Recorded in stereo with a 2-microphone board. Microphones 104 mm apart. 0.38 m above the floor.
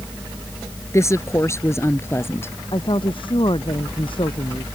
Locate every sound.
0.9 s a woman speaking: 30° left (ahead or behind); by 2.5 s 25° left (ahead or behind)
2.7 s a woman speaking: 55° left (ahead or behind)